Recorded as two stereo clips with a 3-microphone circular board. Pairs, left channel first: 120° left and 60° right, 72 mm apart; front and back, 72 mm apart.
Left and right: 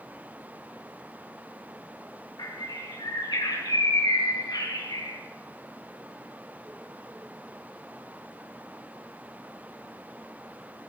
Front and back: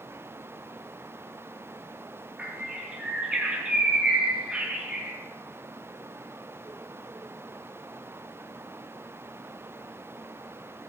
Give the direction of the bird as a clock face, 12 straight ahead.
8 o'clock.